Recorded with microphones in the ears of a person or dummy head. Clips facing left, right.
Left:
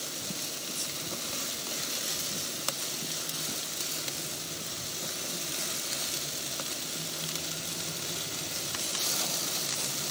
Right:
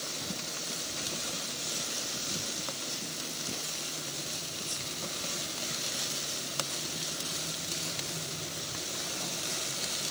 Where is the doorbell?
I don't hear a doorbell.